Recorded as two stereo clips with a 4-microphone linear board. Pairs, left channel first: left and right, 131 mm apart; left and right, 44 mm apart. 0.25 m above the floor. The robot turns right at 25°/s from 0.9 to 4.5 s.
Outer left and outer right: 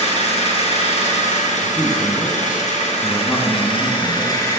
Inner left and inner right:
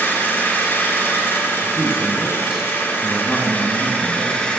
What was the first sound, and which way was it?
An engine running, 65° left.